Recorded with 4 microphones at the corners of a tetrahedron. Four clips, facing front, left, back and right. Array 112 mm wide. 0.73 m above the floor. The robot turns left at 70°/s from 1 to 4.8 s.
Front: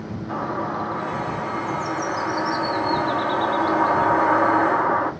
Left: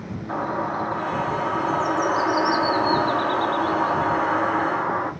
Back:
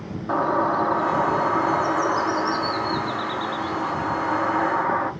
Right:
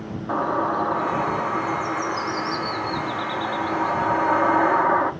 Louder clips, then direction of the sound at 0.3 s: Right 3 dB, back 6 dB; 150° right.